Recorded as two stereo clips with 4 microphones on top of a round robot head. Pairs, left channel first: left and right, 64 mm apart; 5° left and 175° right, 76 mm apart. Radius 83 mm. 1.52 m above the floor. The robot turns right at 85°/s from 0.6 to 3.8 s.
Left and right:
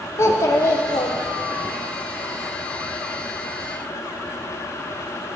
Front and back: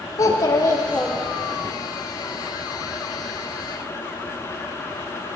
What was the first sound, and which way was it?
A child speaking, 50° left.